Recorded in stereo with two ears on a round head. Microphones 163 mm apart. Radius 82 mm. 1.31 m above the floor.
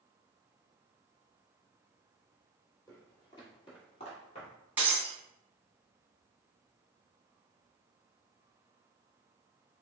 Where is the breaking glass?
10° right (ahead or behind), 1.4 m.